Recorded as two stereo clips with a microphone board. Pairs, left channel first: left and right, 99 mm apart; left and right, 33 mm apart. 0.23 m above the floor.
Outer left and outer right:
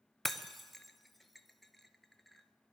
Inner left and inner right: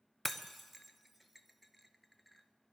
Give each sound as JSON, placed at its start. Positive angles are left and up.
{"t": 0.2, "sound": "breaking glass", "side_deg": 0, "distance_m": 0.6}